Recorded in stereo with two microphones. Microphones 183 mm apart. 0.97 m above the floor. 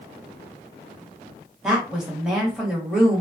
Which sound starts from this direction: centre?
A woman speaking, at 1.6 s.